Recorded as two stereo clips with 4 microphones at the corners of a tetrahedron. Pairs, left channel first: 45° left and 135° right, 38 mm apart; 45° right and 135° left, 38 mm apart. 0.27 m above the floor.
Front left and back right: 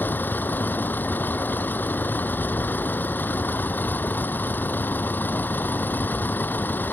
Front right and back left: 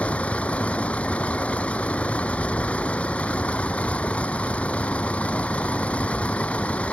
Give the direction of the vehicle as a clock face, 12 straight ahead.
12 o'clock.